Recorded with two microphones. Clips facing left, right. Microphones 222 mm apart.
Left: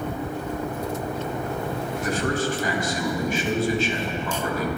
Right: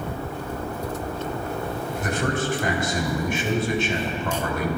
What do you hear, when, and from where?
2.0 s a man speaking: 55° right (ahead or behind), 3 m